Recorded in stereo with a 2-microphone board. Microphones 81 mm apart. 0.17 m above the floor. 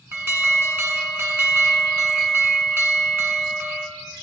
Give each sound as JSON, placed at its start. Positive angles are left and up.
{"t": 0.1, "sound": "an alarm", "side_deg": -30, "distance_m": 1.4}